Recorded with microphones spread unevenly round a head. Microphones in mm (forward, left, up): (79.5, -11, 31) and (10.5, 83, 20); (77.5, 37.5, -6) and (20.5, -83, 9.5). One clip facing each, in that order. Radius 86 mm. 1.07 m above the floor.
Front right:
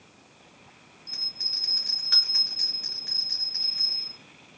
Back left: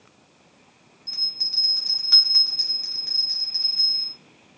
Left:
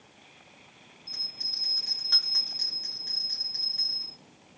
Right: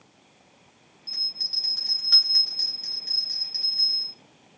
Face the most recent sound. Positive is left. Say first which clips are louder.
# back left 2 dB, right 2 dB
turn(degrees=150)